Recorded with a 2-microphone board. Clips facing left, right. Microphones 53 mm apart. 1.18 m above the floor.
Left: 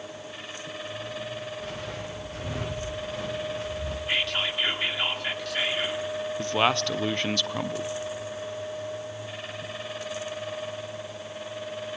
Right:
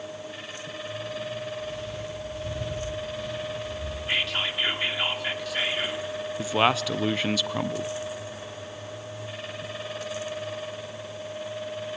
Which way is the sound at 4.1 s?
5° right (ahead or behind).